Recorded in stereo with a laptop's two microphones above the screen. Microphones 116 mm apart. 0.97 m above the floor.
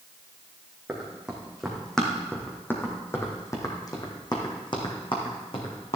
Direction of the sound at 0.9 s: 10° right (ahead or behind).